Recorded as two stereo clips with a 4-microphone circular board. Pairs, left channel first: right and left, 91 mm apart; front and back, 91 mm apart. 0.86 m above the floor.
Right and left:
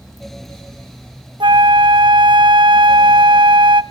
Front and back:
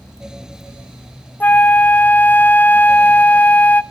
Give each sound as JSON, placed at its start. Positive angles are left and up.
{"t": 1.4, "sound": "a flute", "azimuth_deg": 70, "distance_m": 0.7}